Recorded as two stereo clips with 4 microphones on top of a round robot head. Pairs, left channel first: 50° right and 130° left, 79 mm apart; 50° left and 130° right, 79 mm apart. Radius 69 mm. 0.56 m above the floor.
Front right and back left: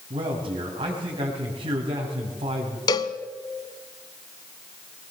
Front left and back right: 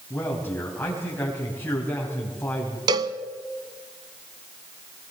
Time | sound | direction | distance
0.1 | a man speaking | 125° left | 4 m
2.9 | a cowbell | 90° right | 0.7 m